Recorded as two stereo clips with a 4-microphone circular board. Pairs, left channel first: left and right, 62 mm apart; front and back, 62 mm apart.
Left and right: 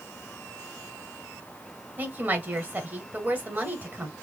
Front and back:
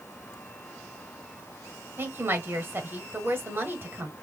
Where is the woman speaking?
140° right, 1.3 m.